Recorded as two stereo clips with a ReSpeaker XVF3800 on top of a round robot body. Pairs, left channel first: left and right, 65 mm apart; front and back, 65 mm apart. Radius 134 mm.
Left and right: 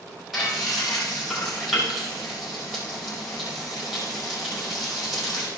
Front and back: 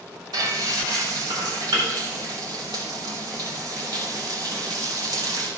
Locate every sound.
0.3 s frying: straight behind, 6 m